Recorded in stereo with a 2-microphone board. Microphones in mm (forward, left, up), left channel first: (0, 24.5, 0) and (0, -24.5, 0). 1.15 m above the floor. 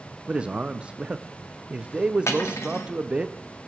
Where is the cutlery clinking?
75° left (ahead or behind), 1.3 m.